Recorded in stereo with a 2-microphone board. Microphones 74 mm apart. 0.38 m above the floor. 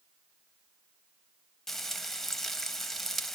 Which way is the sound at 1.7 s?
5° left (ahead or behind).